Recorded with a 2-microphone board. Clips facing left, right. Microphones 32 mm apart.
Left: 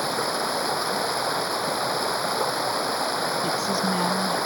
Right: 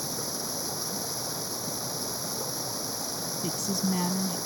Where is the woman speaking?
15° left (ahead or behind).